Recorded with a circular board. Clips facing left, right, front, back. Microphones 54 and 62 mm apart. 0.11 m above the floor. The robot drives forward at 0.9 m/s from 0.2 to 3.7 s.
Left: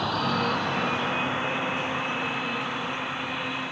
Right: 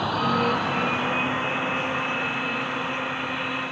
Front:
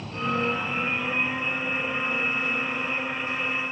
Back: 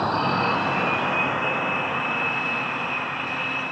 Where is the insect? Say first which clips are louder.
Right 3 dB, back 5 dB; 170° right; by 3.7 s straight behind.